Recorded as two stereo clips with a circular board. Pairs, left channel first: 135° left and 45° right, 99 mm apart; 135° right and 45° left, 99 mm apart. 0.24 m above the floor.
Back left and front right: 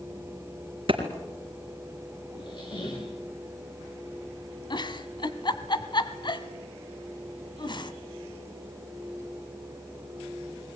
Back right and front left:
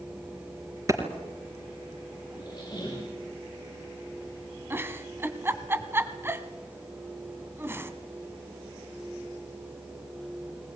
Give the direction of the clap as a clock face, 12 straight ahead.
12 o'clock.